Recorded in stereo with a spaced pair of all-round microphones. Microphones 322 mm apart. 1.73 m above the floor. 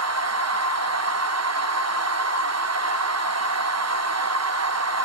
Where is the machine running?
55° right (ahead or behind), 1.0 m.